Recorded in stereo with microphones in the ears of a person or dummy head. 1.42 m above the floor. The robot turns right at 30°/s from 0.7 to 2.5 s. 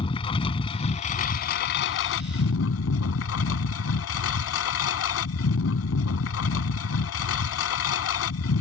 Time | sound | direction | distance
0.0 | a lawn mower | 30° left | ?